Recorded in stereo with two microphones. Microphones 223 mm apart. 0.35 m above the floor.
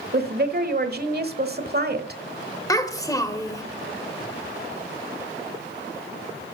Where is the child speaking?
15° left (ahead or behind), 1.0 m.